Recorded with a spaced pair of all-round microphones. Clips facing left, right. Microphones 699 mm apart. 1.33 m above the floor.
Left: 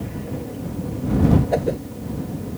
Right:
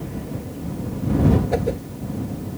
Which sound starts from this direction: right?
A whoosh, at 1.5 s.